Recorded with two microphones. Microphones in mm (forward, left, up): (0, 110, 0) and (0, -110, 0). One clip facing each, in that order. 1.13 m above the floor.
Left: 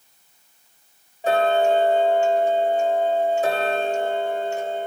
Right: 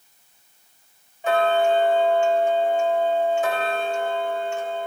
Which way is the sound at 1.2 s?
40° left (ahead or behind).